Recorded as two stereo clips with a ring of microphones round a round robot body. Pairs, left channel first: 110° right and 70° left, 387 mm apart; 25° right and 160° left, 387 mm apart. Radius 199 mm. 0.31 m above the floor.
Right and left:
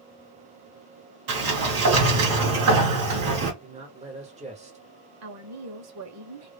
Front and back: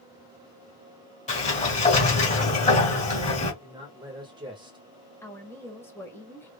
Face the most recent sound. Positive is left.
turn(degrees=60)